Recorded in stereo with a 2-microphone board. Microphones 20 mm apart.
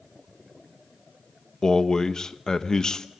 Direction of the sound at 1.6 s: 35° left (ahead or behind).